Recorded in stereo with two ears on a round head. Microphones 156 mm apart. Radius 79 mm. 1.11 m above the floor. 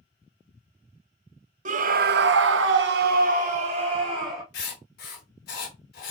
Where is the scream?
45° right (ahead or behind), 0.7 m; by 4.4 s 25° right (ahead or behind), 1.3 m.